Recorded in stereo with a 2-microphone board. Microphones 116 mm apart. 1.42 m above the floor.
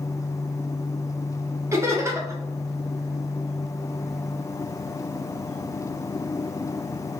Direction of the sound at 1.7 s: 25° right (ahead or behind).